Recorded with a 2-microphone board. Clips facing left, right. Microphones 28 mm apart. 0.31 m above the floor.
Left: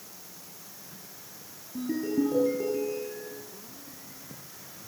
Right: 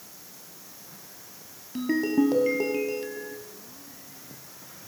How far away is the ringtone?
About 3.5 m.